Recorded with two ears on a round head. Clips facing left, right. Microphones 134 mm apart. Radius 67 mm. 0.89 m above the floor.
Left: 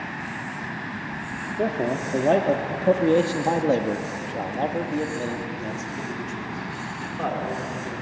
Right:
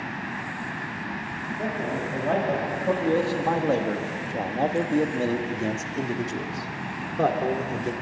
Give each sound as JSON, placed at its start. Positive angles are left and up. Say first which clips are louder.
{"t": 1.6, "sound": "a man speaking", "louder": "left 5 dB", "side_deg": 55, "distance_m": 2.5}